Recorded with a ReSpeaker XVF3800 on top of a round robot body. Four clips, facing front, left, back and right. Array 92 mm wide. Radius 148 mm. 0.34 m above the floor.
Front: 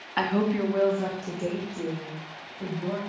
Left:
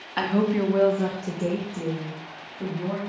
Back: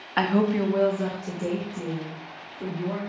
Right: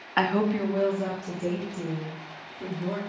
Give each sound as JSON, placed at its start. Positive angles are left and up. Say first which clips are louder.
{"t": 0.2, "sound": "a woman speaking", "louder": "left 1 dB, back 2 dB", "azimuth_deg": -120, "distance_m": 0.9}